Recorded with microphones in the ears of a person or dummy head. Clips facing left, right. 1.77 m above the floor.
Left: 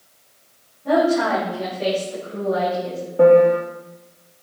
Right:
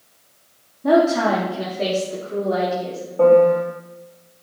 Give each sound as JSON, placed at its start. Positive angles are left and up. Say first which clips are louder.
{"t": 0.8, "sound": "a woman speaking", "louder": "right 2 dB", "side_deg": -80, "distance_m": 3.0}
{"t": 3.2, "sound": "a piano", "louder": "left 1 dB", "side_deg": 15, "distance_m": 1.5}